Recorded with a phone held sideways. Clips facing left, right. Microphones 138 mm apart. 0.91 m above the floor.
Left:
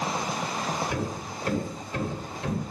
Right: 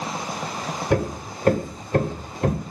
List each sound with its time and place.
0.9 s hammering: 55° right (ahead or behind), 1.9 m